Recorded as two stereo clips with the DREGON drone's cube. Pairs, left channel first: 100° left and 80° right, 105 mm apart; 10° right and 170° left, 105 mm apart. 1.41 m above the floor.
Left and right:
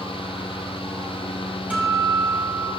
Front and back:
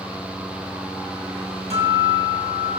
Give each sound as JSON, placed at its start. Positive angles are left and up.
{"t": 1.7, "sound": "a guitar", "azimuth_deg": 0, "distance_m": 9.0}